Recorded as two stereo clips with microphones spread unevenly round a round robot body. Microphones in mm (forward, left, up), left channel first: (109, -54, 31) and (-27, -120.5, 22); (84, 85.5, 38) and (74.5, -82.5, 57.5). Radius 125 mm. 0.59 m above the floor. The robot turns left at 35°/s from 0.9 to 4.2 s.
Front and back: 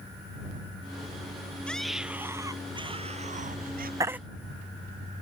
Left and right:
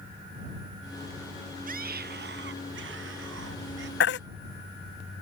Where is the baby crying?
130° left; by 4.2 s 120° left.